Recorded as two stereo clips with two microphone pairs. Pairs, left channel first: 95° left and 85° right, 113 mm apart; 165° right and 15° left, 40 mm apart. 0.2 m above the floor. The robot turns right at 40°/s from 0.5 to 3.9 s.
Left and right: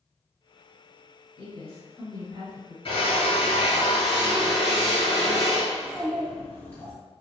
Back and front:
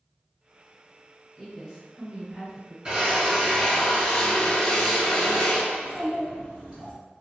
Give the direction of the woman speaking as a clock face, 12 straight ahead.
3 o'clock.